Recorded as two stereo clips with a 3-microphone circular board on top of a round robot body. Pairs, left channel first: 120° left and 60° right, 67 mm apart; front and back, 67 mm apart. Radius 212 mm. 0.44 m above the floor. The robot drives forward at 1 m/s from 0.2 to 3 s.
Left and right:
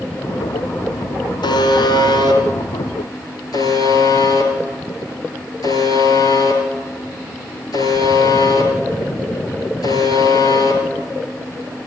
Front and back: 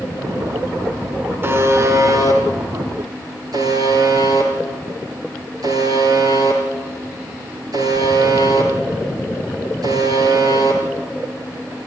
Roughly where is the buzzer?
Behind left.